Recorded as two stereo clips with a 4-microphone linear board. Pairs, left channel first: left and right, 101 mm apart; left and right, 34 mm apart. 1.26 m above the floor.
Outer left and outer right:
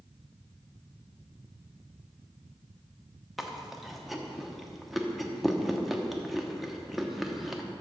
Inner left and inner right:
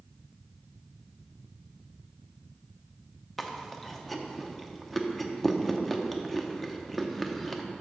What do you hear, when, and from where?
3.4 s chewing: centre (ahead or behind), 0.7 m